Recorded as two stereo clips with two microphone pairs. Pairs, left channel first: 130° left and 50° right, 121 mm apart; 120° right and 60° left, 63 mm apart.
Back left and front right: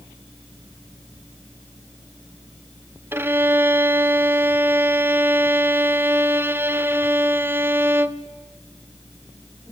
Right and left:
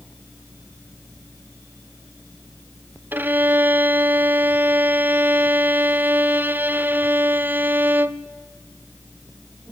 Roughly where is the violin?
Ahead.